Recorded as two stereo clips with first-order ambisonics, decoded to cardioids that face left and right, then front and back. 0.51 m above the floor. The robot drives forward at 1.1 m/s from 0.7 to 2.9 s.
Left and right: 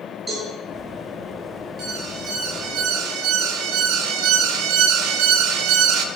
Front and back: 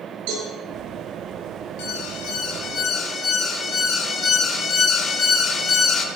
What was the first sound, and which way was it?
A cowbell, 170° right.